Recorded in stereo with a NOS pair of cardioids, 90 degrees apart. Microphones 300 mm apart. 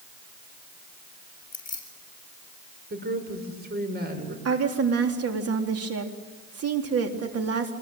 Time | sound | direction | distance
1.5 | keys jangling | 30° left | 7 m
2.9 | a woman speaking | 35° right | 6.5 m
4.5 | a woman speaking | 55° right | 4 m